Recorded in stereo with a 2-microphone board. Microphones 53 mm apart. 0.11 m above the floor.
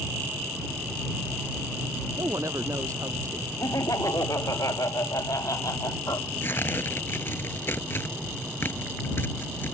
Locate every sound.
2.2 s a woman speaking: 70° right (ahead or behind)
3.6 s laughter: 85° left
6.4 s tearing paper: 45° left (ahead or behind)